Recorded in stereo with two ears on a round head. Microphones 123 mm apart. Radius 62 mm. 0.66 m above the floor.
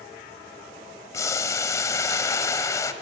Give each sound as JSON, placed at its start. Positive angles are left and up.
{"t": 1.1, "sound": "boiling", "side_deg": 25, "distance_m": 1.3}